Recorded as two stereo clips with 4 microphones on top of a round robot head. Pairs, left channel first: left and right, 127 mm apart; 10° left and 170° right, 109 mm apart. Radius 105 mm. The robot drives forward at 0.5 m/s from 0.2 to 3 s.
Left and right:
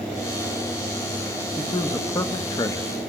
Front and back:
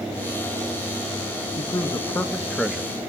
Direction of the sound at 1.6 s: 35° left.